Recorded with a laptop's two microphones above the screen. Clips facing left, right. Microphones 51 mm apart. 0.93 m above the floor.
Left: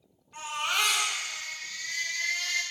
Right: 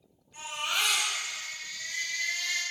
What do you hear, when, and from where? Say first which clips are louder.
0.3 s a baby crying: left 2 dB; 70° left (ahead or behind), 3 m